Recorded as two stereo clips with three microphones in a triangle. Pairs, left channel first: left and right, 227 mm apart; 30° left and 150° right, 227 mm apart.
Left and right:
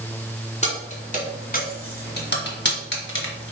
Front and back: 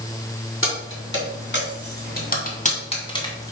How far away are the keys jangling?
About 2.5 m.